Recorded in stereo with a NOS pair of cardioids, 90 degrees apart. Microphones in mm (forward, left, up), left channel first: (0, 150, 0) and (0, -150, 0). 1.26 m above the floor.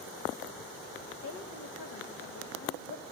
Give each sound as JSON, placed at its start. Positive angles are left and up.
{"t": 1.2, "sound": "a woman speaking", "azimuth_deg": 55, "distance_m": 2.0}